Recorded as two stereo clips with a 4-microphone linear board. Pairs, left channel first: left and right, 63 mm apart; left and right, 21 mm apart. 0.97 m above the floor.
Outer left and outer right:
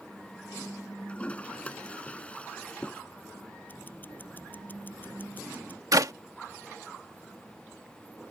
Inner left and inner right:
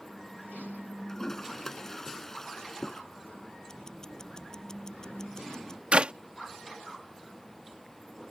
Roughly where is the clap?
Right.